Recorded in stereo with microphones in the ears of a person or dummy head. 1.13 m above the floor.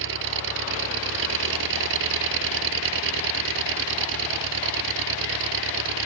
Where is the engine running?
70° right (ahead or behind).